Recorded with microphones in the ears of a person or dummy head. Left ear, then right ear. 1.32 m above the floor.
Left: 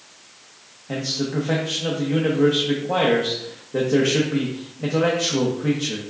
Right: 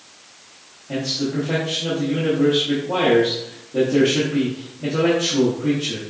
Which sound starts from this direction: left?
A man speaking, at 0.9 s.